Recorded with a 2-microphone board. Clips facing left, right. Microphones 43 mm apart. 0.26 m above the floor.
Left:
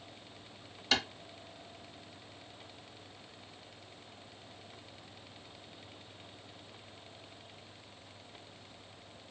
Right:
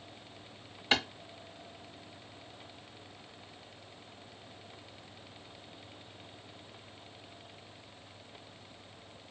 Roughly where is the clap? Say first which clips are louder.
Right 2 dB; right.